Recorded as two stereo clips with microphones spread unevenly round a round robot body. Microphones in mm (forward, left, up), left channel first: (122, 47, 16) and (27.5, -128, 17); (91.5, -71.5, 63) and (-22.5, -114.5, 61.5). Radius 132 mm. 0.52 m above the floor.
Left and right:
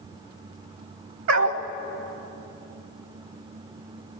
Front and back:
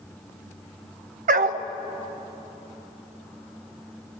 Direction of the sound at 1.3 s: 160° right.